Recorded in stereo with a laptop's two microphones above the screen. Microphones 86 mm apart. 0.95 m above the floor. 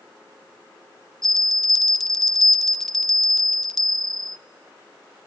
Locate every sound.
1.2 s a bell: 5° left (ahead or behind), 0.7 m